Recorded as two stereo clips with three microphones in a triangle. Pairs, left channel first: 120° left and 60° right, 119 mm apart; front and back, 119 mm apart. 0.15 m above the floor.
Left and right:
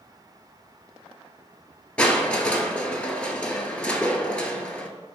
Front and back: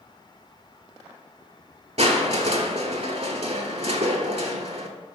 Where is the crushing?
160° right, 0.5 m.